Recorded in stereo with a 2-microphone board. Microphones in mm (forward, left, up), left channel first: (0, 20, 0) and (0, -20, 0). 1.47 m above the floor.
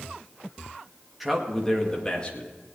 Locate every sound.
1.2 s a man speaking: 5° right (ahead or behind), 2 m; by 2.5 s 30° left (ahead or behind), 2.5 m